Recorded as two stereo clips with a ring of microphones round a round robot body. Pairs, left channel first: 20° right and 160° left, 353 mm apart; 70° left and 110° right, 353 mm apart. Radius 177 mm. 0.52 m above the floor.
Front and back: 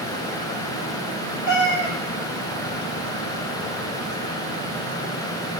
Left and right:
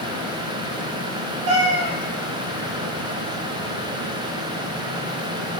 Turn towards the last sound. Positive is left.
turn(degrees=-60)